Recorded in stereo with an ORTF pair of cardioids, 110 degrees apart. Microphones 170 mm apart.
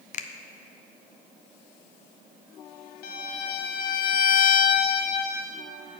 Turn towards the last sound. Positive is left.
turn(degrees=65)